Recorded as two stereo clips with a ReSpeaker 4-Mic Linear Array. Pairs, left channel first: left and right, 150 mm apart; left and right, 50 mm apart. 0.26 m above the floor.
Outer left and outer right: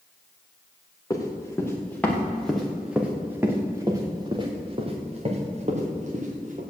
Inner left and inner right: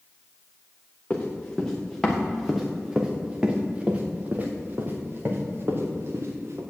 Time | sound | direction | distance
1.1 | running footsteps | 25° left (ahead or behind) | 3 m